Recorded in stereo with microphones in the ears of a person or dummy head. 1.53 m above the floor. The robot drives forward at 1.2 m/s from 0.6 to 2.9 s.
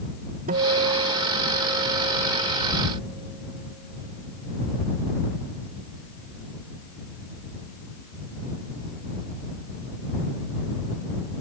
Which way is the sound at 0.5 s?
45° right (ahead or behind).